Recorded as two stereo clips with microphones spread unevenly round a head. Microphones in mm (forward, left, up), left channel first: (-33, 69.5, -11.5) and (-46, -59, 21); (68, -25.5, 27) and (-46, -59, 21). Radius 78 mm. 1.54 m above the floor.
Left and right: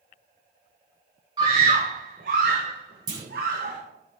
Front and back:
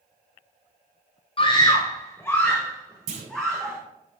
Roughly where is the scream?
Ahead right.